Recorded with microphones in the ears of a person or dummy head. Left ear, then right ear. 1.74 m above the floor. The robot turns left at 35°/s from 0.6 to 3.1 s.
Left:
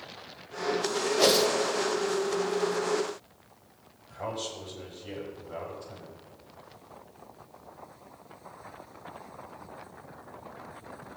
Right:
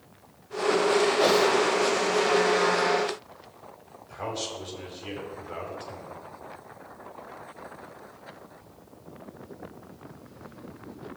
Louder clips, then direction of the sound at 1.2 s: Left 2 dB; 30° left (ahead or behind).